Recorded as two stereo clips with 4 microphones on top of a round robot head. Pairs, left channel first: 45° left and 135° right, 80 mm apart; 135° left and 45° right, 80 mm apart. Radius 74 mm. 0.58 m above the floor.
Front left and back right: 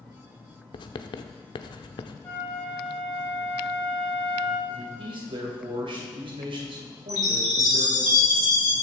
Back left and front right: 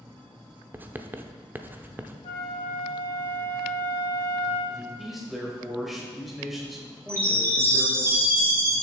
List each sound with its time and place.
0.7 s writing: 20° left, 0.7 m
2.2 s a flute: 115° left, 3.5 m
4.7 s a man speaking: 135° right, 2.5 m
7.1 s a chime: 10° left, 4.5 m